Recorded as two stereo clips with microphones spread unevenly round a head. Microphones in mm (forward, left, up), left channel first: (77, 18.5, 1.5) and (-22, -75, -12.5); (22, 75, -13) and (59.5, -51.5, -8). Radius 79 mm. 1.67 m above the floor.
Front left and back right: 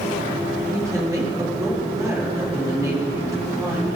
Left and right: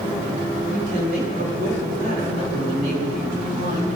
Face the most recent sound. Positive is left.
turn(degrees=-70)